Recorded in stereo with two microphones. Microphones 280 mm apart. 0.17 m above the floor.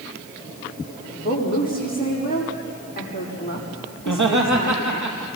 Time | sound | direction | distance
1.1 | a woman speaking | 30° left (ahead or behind) | 8 m
4.0 | laughter | 80° right | 4.5 m